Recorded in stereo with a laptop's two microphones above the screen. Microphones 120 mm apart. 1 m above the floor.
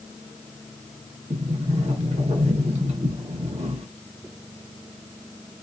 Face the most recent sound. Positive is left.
turn(degrees=-60)  # may be behind; listen again after turning